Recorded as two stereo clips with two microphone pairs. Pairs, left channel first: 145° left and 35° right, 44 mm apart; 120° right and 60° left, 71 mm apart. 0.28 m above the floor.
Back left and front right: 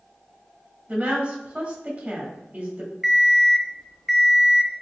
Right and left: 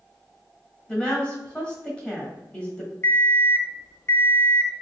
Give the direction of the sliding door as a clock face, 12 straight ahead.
I don't hear a sliding door.